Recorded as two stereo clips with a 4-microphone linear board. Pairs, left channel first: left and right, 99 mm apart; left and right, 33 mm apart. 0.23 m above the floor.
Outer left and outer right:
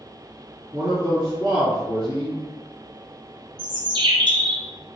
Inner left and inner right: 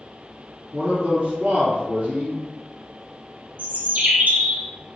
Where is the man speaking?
35° right (ahead or behind), 2 m.